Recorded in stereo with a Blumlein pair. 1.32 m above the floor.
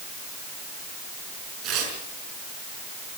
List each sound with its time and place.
1.6 s tearing paper: 35° right, 5.5 m